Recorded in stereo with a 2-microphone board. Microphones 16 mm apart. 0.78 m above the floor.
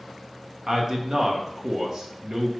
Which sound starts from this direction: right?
A man speaking, at 0.7 s.